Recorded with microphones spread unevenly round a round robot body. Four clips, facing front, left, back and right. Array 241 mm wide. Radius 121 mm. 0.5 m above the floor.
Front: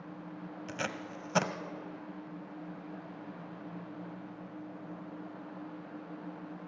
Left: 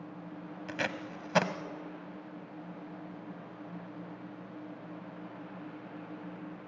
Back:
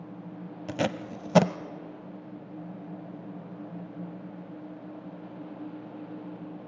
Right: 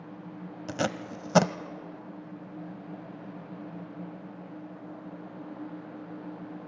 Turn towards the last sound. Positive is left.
turn(degrees=-150)